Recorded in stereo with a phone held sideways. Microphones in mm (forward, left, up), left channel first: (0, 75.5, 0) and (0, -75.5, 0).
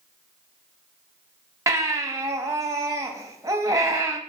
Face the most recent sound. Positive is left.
turn(degrees=-20)  # may be behind; listen again after turning